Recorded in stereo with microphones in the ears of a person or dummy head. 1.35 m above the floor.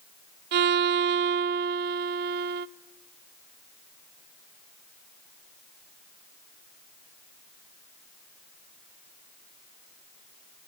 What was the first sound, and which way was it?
A violin, 50° right (ahead or behind).